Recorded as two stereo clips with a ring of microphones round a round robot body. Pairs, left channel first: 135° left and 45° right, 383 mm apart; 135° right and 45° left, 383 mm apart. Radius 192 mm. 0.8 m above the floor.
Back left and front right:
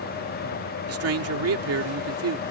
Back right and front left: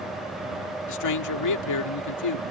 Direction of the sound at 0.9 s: 95° right.